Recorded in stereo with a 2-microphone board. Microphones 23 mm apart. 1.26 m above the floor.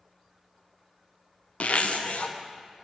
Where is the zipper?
70° left (ahead or behind), 0.5 m.